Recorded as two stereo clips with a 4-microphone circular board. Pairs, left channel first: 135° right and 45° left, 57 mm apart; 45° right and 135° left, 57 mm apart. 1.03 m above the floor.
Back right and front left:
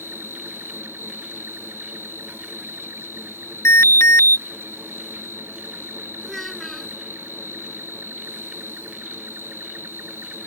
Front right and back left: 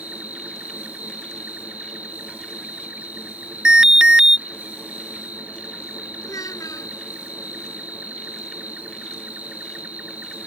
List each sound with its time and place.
0.0 s an insect: 80° left
3.6 s an alarm: 150° right
6.2 s a child speaking: 50° right